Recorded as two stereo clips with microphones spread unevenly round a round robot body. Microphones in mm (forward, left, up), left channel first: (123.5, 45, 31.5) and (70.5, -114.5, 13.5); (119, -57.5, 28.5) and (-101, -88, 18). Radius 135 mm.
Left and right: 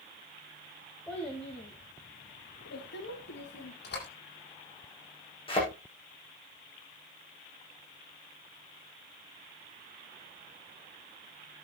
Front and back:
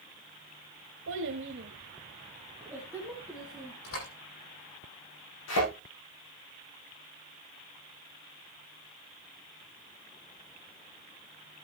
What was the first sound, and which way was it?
A child speaking, 160° left.